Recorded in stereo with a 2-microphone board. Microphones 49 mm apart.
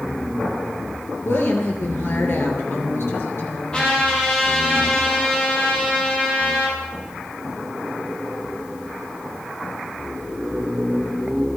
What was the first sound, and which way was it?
A woman speaking, 65° left (ahead or behind).